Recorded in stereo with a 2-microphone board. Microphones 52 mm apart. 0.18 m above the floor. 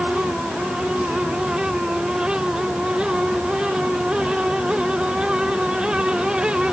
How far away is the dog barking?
No dog barking in this recording.